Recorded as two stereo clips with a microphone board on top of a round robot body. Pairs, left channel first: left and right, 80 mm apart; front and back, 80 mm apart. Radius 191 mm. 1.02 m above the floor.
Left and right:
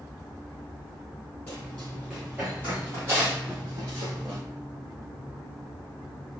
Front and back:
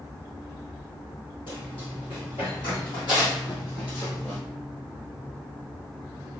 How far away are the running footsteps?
About 1.6 m.